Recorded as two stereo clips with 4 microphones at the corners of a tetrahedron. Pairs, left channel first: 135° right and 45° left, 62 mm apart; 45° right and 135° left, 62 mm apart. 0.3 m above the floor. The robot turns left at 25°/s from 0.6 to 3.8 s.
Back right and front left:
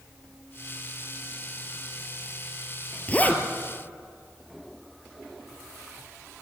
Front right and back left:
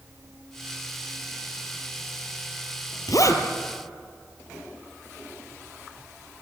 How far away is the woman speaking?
I don't hear a woman speaking.